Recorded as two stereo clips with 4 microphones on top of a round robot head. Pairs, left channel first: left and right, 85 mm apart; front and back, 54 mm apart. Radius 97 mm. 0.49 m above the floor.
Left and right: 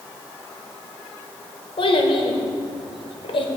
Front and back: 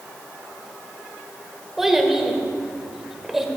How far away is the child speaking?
About 1.6 m.